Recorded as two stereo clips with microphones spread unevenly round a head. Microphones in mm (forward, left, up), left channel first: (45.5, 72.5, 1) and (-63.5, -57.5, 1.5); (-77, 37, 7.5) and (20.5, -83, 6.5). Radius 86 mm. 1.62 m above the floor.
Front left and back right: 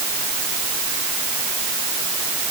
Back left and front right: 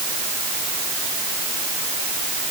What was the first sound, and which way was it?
Only background noise.